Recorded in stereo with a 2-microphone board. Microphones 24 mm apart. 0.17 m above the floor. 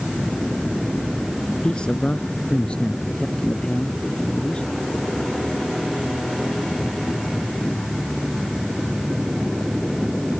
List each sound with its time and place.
1.6 s a man speaking: 40° left (ahead or behind)